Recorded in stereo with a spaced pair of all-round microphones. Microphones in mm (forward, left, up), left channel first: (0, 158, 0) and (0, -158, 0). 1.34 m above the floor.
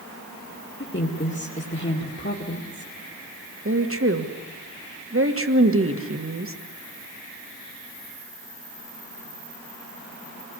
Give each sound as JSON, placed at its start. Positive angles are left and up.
{"t": 0.8, "sound": "a woman speaking", "side_deg": 35, "distance_m": 2.5}
{"t": 3.6, "sound": "a woman speaking", "side_deg": -45, "distance_m": 1.7}